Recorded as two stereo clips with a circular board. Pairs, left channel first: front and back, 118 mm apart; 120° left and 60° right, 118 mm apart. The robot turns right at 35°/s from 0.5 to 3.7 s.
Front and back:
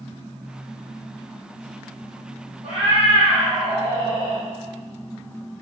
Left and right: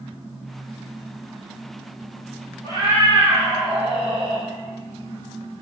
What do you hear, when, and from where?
2.6 s a cat meowing: straight behind, 1.5 m; by 4.4 s 140° right, 1.5 m